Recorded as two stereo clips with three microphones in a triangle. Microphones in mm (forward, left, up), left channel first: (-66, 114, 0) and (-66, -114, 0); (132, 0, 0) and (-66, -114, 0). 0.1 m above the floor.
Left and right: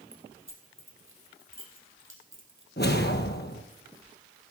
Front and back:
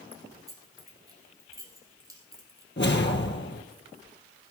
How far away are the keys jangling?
About 2.5 m.